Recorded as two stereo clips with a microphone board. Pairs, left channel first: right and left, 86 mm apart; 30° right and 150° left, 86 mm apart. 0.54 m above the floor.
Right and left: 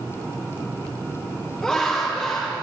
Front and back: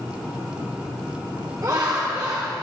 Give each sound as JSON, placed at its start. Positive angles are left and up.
{"t": 1.6, "sound": "laughter", "azimuth_deg": -160, "distance_m": 1.8}